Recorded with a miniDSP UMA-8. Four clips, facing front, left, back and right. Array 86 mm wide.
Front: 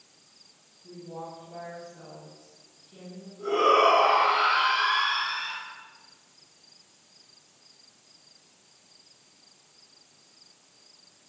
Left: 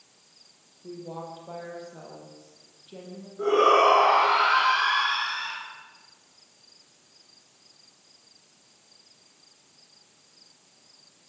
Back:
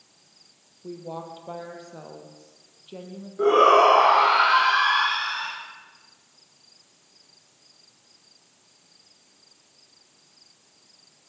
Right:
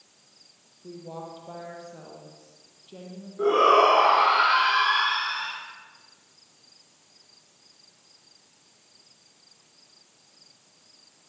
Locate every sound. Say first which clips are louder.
0.8 s a woman speaking: left 1 dB, back 5 dB; straight behind, 5.5 m
3.4 s a shout: right 1 dB, back 5 dB; 165° right, 7 m